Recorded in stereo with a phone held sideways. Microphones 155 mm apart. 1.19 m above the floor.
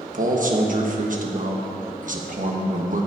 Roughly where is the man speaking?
Right.